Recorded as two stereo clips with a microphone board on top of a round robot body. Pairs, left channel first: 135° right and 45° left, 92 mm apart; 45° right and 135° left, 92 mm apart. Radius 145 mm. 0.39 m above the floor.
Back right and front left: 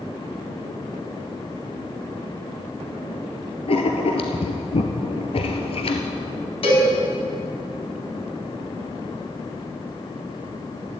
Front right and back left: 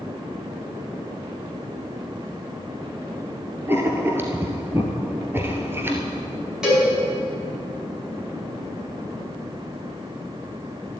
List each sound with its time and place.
3.7 s writing: 160° right, 1.5 m
6.6 s a cowbell: 145° right, 5 m